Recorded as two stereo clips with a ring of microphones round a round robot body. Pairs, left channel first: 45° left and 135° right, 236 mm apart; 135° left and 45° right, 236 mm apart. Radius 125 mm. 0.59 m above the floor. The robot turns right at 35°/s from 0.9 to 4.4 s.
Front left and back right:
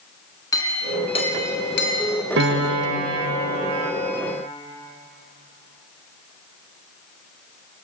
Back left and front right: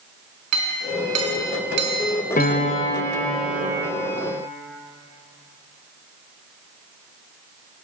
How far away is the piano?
About 2.5 m.